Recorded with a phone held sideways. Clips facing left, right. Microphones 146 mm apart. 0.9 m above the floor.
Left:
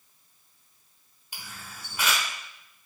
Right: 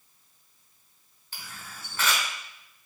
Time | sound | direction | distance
1.3 | a camera shutter | 15° left (ahead or behind) | 1.0 m